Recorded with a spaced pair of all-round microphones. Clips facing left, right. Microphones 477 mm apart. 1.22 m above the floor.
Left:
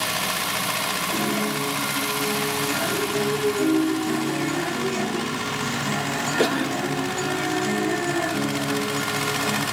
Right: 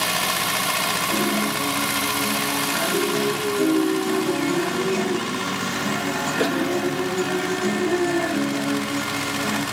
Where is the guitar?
60° right (ahead or behind), 1.4 m.